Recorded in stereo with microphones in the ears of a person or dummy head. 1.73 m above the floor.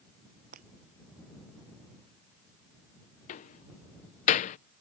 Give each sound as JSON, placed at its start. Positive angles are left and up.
{"t": 0.5, "sound": "breaking glass", "side_deg": -45}
{"t": 3.3, "sound": "a door slam", "side_deg": 45}